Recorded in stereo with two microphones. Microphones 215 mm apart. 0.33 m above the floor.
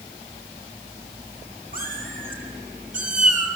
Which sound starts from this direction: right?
A cat meowing, at 1.7 s.